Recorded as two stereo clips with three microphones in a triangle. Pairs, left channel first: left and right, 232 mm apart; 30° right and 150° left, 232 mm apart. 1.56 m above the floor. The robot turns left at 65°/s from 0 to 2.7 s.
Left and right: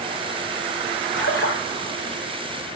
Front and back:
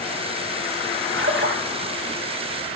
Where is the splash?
125° left, 3.5 m; by 1.6 s 95° left, 3.5 m.